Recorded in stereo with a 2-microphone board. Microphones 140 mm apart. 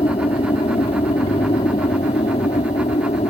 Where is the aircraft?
45° left (ahead or behind); by 3.3 s 50° left (ahead or behind).